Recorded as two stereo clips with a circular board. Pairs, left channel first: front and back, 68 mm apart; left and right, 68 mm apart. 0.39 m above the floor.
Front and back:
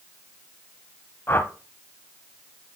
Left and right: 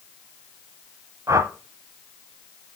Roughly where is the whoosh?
Ahead right.